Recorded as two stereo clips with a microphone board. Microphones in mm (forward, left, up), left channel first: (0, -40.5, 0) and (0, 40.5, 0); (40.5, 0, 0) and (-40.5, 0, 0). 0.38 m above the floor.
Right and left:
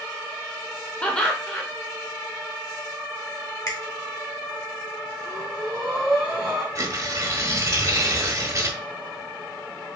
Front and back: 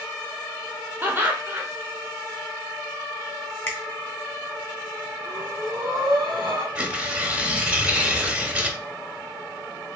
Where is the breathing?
Straight behind, 2.5 m.